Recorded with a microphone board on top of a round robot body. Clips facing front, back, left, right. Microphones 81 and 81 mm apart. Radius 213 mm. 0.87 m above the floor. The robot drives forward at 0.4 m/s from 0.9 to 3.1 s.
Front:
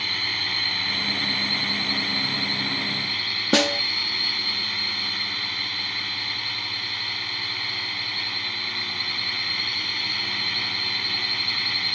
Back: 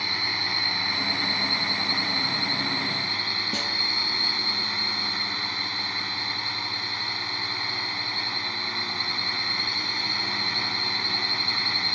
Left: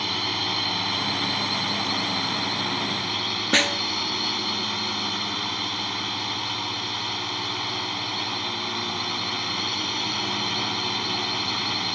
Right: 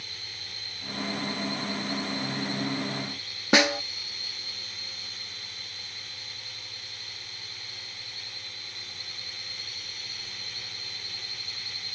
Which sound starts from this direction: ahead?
A snare drum, at 3.5 s.